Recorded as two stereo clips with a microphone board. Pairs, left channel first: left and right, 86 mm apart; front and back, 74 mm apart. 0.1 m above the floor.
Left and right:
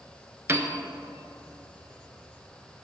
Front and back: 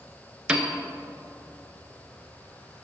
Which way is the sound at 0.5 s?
115° right.